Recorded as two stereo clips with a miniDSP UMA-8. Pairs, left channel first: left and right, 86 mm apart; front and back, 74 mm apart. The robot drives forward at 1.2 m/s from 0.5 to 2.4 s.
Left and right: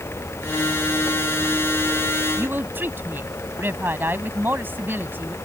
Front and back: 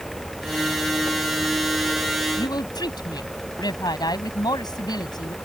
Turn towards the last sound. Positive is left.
turn(degrees=-20)